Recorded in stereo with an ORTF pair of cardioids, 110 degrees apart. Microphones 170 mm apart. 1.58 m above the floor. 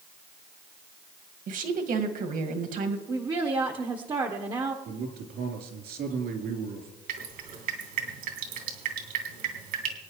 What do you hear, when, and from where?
1.5 s a woman speaking: 55° right, 2.0 m
3.1 s a woman speaking: 25° right, 1.1 m
4.8 s a man speaking: 65° right, 3.5 m
7.1 s dripping: 65° right, 3 m